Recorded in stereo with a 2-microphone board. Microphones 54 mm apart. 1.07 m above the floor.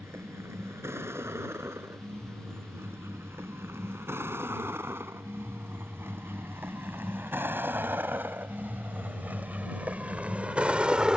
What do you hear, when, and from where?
0.0 s a vehicle: 50° right (ahead or behind); by 11.2 s 15° right (ahead or behind)